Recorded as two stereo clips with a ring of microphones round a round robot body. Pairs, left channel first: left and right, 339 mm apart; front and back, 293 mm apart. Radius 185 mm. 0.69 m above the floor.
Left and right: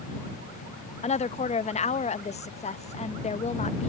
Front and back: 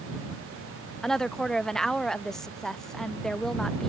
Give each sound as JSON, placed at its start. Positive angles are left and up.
{"t": 1.0, "sound": "a woman speaking", "azimuth_deg": 85}